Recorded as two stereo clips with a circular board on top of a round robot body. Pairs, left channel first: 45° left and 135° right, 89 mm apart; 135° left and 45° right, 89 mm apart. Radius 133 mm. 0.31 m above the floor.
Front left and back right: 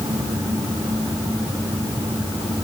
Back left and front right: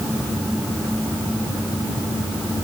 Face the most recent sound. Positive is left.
No sound to turn to.